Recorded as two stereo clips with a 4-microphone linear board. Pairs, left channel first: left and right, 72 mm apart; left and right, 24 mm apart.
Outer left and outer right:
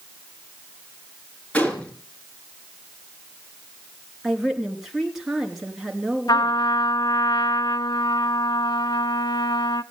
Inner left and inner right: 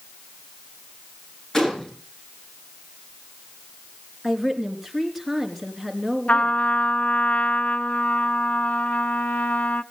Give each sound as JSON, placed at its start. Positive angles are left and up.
{"t": 1.5, "sound": "a gunshot", "side_deg": 15, "distance_m": 3.5}
{"t": 4.2, "sound": "a woman speaking", "side_deg": -5, "distance_m": 3.5}
{"t": 6.3, "sound": "a trumpet", "side_deg": 70, "distance_m": 0.5}